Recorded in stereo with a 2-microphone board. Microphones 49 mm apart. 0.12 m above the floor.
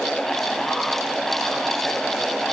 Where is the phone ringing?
I don't hear a phone ringing.